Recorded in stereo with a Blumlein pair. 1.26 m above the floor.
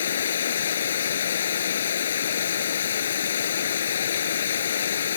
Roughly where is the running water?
Ahead left.